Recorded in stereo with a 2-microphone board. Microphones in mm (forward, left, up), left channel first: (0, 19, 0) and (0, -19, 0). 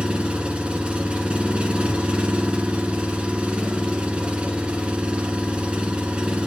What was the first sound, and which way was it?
An engine running, 25° right (ahead or behind).